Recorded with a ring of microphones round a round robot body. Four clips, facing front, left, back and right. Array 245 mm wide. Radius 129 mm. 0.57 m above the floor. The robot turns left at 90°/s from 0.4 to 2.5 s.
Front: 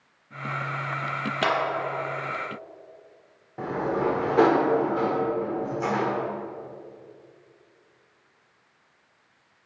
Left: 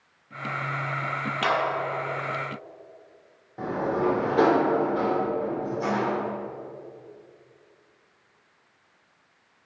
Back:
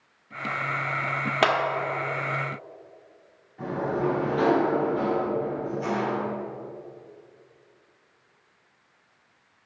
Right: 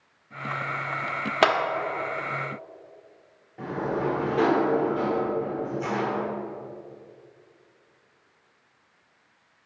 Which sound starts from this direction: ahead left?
A sliding door, at 3.6 s.